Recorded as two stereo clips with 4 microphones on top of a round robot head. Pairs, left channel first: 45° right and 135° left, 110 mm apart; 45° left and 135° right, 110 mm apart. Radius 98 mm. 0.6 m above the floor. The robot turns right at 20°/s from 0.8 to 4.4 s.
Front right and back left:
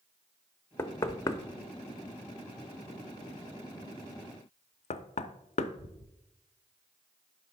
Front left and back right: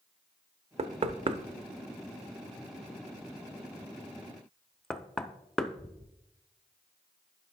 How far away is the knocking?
About 0.6 m.